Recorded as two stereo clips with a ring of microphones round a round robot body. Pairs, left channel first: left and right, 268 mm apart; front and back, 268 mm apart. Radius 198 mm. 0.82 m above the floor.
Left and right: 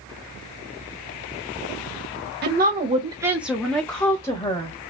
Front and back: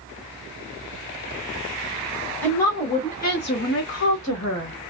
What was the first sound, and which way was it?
A woman speaking, 80° right.